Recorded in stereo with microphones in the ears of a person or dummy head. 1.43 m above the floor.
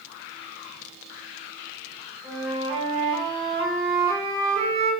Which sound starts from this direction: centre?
A flute, at 2.2 s.